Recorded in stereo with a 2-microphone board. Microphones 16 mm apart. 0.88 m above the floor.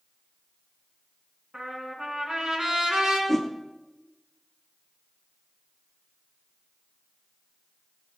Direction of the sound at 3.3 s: 15° left (ahead or behind).